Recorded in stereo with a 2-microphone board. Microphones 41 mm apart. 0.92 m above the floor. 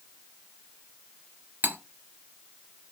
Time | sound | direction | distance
1.6 | cutlery clinking | 50° right (ahead or behind) | 1.1 m